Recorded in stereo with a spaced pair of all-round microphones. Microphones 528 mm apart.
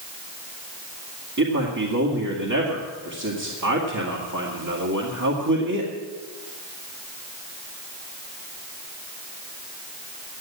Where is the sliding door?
No sliding door in this recording.